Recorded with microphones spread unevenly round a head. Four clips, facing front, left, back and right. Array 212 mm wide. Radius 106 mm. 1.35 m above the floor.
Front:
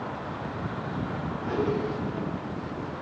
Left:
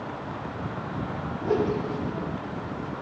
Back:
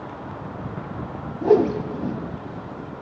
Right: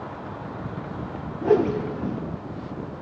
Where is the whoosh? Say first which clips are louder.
Right 5 dB, back 11 dB; 160° right, 0.5 m.